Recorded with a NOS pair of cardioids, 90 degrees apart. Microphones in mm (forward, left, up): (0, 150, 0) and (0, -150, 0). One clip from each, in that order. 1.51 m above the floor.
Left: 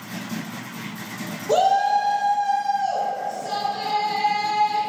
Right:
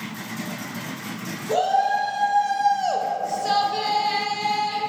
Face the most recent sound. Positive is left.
turn(degrees=-80)